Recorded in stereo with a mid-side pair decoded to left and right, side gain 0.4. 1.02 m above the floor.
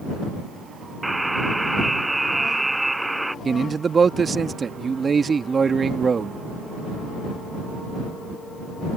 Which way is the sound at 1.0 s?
10° right.